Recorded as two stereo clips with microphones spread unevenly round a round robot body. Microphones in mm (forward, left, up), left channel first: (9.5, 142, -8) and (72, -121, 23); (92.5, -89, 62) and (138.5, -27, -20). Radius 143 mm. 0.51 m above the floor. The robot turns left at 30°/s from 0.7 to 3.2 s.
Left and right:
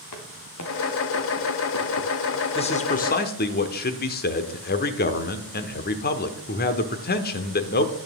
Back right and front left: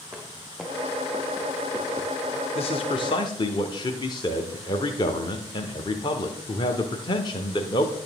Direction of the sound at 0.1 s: 135° left.